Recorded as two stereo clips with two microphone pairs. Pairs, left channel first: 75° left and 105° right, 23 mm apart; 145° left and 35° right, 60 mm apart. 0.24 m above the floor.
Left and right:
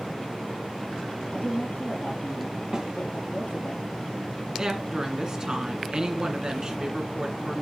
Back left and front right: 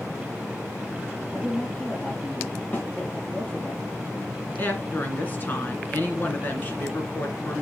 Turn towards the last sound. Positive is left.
turn(degrees=-165)